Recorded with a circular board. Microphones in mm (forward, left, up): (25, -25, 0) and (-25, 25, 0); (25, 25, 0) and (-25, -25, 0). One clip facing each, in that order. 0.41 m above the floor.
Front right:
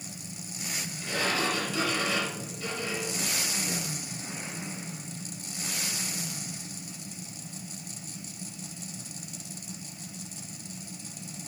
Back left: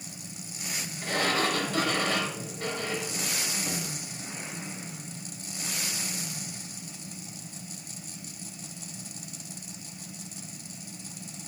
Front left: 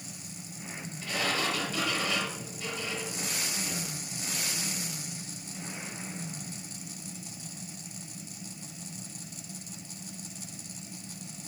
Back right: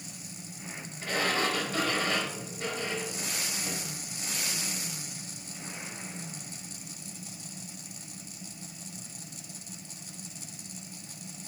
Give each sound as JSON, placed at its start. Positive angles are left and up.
{"t": 1.0, "sound": "a sliding door", "azimuth_deg": 175, "distance_m": 3.5}